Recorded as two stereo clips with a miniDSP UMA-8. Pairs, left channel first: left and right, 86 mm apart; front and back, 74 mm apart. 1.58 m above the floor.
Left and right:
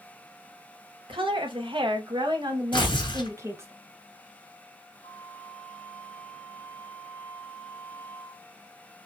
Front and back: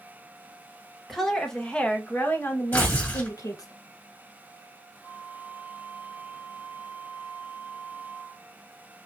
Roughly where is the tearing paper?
Ahead left.